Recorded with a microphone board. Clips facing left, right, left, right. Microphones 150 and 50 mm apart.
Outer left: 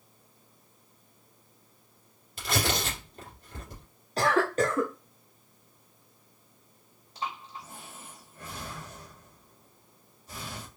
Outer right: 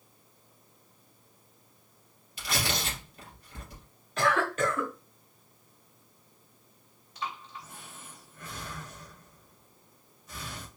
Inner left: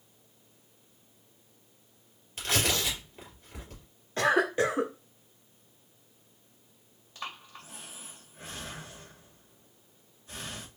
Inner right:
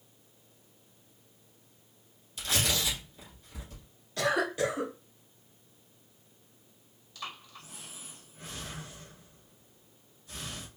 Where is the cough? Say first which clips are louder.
Outer left 2 dB, inner left 3 dB; 35° left (ahead or behind), 0.6 m.